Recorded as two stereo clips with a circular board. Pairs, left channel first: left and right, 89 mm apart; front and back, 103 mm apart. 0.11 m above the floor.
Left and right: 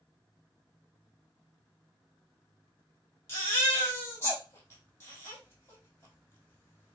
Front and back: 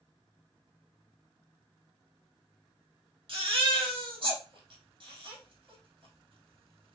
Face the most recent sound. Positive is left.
turn(degrees=150)